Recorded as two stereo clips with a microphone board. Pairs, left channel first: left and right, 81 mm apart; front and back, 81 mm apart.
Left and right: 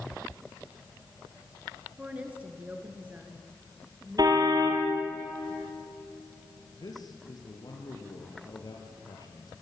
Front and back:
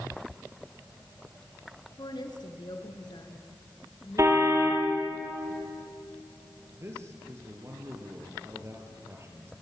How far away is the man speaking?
About 5 m.